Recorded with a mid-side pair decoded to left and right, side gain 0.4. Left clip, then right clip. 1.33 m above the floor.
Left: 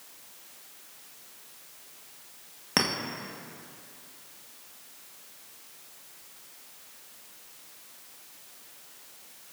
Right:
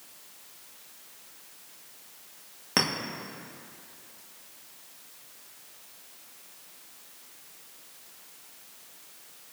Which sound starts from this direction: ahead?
A clink, at 2.8 s.